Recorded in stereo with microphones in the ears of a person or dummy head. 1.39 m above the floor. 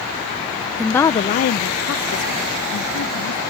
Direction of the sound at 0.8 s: 5° right (ahead or behind).